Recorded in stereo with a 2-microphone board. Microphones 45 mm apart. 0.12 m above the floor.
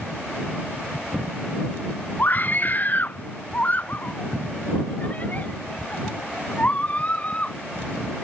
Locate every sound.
2.2 s a scream: 40° left (ahead or behind); by 7.5 s 30° left (ahead or behind)